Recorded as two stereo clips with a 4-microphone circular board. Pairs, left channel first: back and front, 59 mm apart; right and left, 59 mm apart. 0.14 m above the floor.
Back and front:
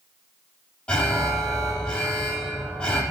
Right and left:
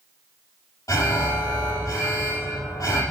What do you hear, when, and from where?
0.9 s an alarm: 110° right, 5 m